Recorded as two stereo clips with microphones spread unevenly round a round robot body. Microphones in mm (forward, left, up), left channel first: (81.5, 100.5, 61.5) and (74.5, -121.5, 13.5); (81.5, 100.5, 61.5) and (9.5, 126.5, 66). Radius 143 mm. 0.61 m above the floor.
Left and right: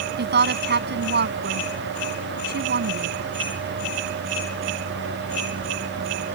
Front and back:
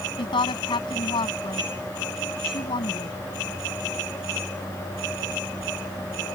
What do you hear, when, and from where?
0.2 s a woman speaking: 50° right